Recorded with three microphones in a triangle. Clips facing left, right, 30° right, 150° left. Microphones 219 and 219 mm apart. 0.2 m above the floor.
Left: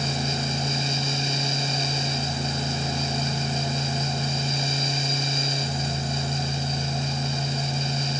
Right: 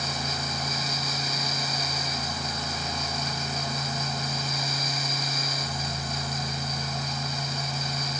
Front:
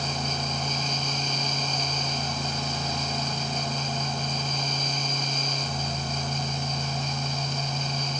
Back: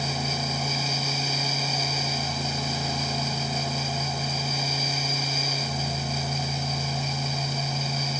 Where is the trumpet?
No trumpet in this recording.